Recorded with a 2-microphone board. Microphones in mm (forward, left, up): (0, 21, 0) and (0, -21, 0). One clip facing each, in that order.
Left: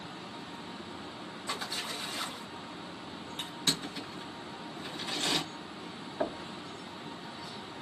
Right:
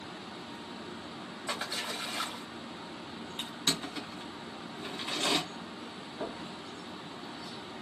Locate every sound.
1.5 s a splash: 40° right (ahead or behind), 3 m
3.4 s crushing: 30° right (ahead or behind), 3 m
6.2 s knocking: 35° left (ahead or behind), 0.9 m